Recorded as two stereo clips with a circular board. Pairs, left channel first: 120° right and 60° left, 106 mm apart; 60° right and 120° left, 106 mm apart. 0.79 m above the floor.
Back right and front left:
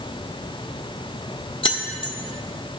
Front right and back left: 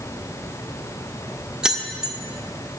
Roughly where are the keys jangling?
Behind.